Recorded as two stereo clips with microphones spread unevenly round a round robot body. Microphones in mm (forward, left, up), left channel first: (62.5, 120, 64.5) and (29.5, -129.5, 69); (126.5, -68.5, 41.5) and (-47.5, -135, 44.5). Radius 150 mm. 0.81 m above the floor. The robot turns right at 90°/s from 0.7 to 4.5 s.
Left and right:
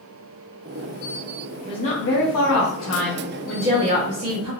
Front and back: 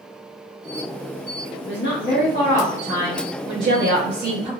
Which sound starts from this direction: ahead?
A woman speaking, at 1.7 s.